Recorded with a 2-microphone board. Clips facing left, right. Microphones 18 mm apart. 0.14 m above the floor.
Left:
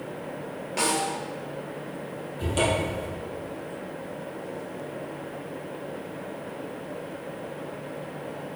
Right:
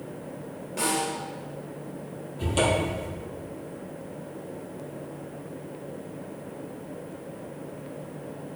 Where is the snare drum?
45° left (ahead or behind), 3 m.